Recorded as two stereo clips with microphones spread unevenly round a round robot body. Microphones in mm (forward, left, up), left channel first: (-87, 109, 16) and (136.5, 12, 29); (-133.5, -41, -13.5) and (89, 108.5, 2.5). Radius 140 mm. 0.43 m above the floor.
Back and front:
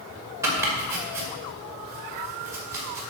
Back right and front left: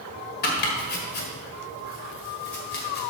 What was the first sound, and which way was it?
Chopping, 105° right.